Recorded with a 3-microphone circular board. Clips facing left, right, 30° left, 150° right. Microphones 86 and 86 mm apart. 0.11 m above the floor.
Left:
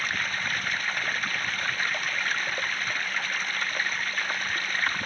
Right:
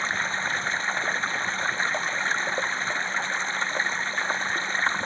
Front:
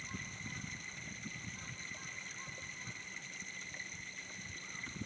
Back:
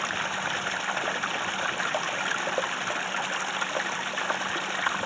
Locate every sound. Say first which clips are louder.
0.0 s running water: right 3 dB, back 18 dB; 155° right